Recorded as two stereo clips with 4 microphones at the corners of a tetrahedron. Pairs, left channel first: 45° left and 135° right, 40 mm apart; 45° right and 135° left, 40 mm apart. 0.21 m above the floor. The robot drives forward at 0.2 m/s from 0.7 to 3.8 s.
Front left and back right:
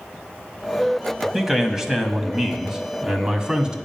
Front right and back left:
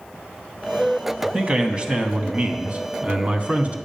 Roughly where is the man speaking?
Behind.